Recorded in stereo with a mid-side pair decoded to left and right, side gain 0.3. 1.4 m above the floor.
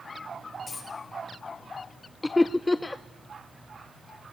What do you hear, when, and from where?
0.7 s a dropped coin: 55° left, 8 m
2.2 s laughter: 25° left, 0.5 m